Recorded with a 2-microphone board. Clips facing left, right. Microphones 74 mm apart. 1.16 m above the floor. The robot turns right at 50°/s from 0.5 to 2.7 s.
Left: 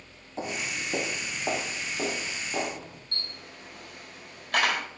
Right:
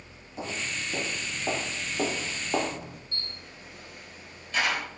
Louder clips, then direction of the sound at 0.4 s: Left 1 dB; 30° left (ahead or behind).